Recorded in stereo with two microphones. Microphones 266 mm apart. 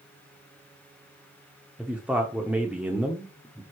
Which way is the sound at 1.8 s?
5° right (ahead or behind).